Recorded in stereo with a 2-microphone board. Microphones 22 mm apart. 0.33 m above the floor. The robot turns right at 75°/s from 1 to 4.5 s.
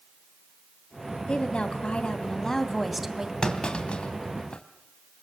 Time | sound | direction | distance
1.3 | a woman speaking | 55° left | 2 m
3.4 | a clunk | 35° left (ahead or behind) | 2.5 m